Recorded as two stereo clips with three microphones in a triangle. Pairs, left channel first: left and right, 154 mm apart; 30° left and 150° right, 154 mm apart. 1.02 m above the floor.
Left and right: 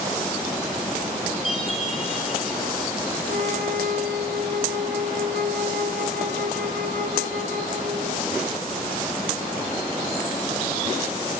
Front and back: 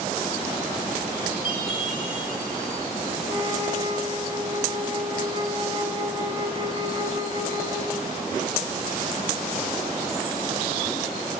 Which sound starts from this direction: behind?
A chime, at 1.4 s.